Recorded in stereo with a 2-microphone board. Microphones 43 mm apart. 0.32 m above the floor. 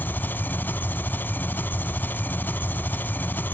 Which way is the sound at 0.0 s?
50° left (ahead or behind).